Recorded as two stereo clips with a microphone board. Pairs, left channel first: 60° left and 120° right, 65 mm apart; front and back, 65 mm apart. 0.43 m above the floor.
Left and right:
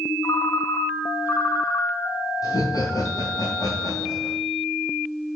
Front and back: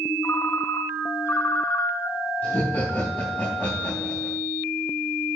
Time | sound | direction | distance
0.2 | a ringtone | 40° left | 1.2 m
2.4 | laughter | 65° left | 4 m